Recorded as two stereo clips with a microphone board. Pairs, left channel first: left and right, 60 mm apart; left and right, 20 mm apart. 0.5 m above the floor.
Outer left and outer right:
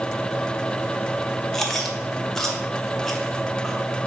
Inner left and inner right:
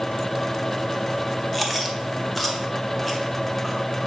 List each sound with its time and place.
1.5 s chewing: 5° left (ahead or behind), 1.0 m